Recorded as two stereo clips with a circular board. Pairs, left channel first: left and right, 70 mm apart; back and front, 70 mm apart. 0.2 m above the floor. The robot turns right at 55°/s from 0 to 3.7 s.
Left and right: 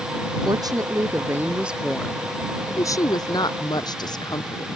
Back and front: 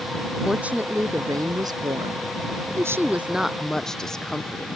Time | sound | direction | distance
0.5 | a woman speaking | 80° right | ?